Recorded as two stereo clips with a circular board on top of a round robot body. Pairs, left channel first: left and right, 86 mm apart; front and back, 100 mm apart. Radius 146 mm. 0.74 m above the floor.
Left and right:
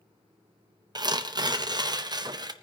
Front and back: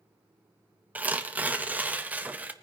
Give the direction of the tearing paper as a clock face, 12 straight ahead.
4 o'clock.